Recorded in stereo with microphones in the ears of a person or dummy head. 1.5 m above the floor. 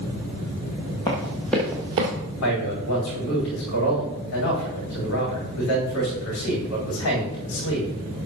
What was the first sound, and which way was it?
Running footsteps, 15° left (ahead or behind).